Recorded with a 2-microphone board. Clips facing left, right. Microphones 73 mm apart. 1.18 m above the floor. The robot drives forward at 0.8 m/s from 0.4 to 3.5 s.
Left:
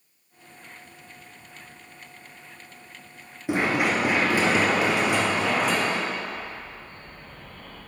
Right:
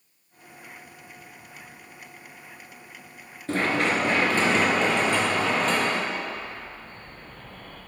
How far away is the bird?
About 2.5 m.